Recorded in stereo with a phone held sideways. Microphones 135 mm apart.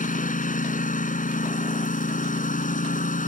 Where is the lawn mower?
80° left.